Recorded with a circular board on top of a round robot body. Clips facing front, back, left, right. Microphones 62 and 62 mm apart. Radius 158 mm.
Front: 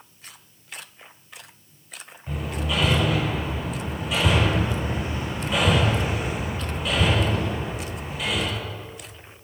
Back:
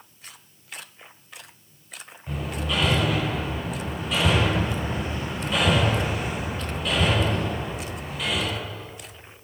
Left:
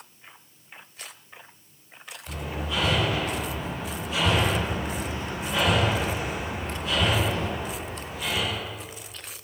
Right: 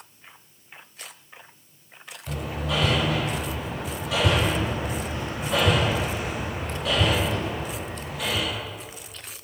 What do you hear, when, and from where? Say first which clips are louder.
2.3 s hammering: even, right 3 dB; 85° right, 4.5 m